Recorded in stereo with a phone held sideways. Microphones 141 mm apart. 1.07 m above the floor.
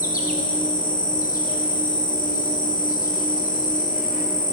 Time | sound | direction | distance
0.0 | an insect | 80° left | 1.1 m